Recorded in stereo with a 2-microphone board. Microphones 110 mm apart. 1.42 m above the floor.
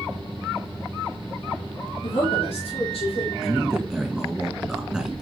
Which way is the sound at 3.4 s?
5° right (ahead or behind).